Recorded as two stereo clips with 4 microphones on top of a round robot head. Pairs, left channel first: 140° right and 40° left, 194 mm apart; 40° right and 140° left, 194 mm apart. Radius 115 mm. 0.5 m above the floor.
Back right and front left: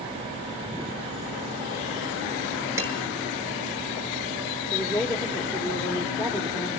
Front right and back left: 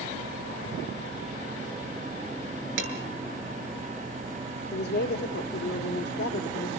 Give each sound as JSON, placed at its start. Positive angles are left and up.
{"t": 2.8, "sound": "dishes clattering", "azimuth_deg": 115, "distance_m": 7.0}
{"t": 4.7, "sound": "a woman speaking", "azimuth_deg": -50, "distance_m": 2.0}